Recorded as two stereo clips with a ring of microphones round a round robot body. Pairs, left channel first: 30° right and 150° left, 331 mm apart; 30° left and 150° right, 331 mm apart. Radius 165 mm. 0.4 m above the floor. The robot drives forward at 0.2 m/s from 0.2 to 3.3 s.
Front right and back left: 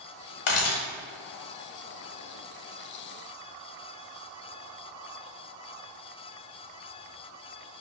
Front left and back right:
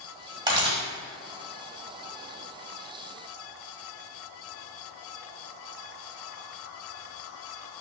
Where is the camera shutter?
75° right, 1.2 m.